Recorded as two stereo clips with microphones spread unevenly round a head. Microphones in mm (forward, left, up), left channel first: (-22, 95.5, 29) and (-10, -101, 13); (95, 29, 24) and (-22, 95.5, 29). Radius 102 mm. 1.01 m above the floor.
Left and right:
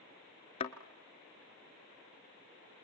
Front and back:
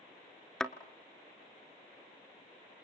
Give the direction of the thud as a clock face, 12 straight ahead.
10 o'clock.